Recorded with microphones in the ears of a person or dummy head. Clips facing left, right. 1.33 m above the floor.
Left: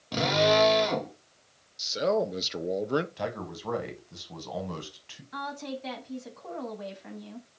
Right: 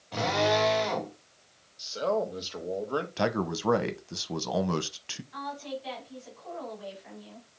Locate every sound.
0.1 s a drill: 55° left (ahead or behind), 2 m
1.8 s a man speaking: 25° left (ahead or behind), 0.8 m
3.2 s a man speaking: 75° right (ahead or behind), 1.0 m
5.3 s a woman speaking: 60° left (ahead or behind), 2.0 m